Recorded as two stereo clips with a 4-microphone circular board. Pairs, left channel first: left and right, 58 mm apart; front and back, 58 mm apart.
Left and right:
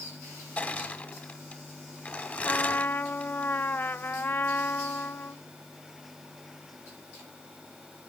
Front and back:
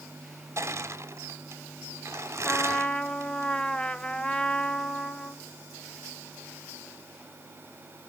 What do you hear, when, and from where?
0.6 s crushing: 150° left, 1.3 m
2.5 s a trumpet: 60° left, 0.7 m